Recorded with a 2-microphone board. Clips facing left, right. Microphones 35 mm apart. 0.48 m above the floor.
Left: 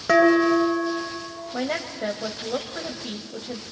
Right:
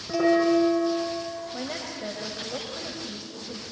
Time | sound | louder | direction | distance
0.1 | dishes clattering | left 4 dB | 80° left | 5 m
1.5 | a woman speaking | left 6 dB | 35° left (ahead or behind) | 2.0 m